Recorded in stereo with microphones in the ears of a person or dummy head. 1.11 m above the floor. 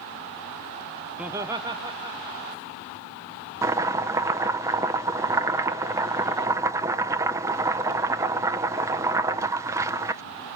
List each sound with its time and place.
1.2 s laughter: centre (ahead or behind), 0.5 m; by 3.0 s 25° right (ahead or behind), 1.9 m
3.6 s chopping: 5° right (ahead or behind), 0.6 m